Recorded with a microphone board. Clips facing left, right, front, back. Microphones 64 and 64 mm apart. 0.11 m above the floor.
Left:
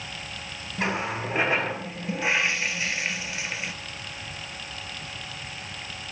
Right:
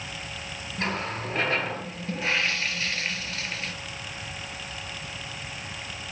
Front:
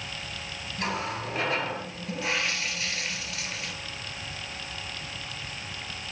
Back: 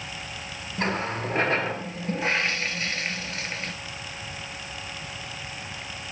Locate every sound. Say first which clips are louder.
0.8 s a running tap: left 3 dB, back 4 dB; 160° left, 1.1 m